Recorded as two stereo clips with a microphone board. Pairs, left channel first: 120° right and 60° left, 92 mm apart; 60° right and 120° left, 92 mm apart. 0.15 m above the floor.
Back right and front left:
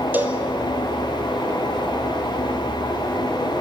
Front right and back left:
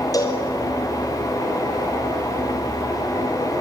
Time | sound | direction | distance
0.1 | a cowbell | 10° right | 2.5 m